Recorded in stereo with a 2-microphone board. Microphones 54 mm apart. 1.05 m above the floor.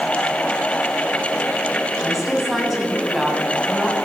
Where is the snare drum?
No snare drum in this recording.